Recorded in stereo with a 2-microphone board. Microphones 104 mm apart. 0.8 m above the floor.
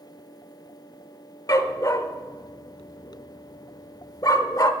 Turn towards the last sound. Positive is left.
turn(degrees=35)  # may be behind; listen again after turning